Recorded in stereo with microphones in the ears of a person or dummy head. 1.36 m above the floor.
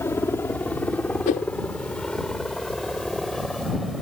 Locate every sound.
0.0 s a helicopter: 10° left (ahead or behind); by 4.0 s centre (ahead or behind)
1.3 s a whoosh: 40° left (ahead or behind)